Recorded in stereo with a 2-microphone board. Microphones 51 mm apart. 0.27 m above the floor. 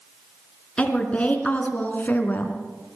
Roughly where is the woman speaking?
Left.